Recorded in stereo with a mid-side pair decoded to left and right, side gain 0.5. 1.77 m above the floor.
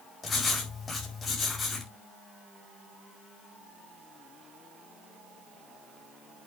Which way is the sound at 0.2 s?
30° left.